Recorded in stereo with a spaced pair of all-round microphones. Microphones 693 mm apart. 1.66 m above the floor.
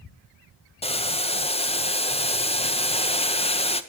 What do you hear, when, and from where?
0.8 s boiling: 10° left (ahead or behind), 0.6 m